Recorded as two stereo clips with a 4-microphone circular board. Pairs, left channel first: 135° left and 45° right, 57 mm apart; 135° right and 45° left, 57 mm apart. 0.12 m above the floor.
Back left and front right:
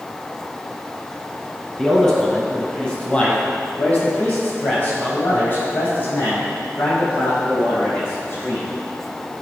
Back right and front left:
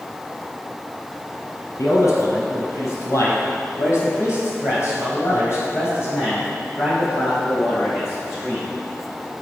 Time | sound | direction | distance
1.8 | a man speaking | 145° right | 2.5 m